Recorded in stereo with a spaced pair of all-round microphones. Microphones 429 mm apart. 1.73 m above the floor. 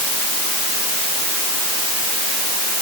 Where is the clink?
I don't hear a clink.